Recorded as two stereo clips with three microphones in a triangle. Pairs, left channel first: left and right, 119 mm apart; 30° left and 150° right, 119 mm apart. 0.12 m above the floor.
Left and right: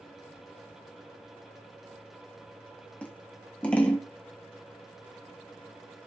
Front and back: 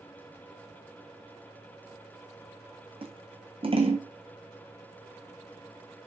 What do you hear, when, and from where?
3.0 s scissors: 170° left, 1.8 m